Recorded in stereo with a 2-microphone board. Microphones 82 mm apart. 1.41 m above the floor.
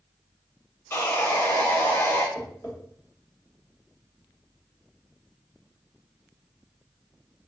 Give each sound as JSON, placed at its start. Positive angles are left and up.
{"t": 0.9, "sound": "sawing", "side_deg": 40, "distance_m": 1.4}
{"t": 2.4, "sound": "tapping", "side_deg": 70, "distance_m": 1.2}